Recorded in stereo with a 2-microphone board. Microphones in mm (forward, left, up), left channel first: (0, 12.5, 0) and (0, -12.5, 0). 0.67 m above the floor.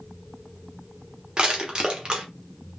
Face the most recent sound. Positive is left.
turn(degrees=-35)  # may be behind; listen again after turning